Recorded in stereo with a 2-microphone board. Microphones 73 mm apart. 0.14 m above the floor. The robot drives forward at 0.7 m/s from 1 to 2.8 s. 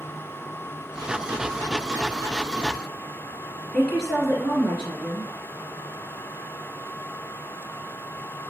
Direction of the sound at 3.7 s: 5° left (ahead or behind).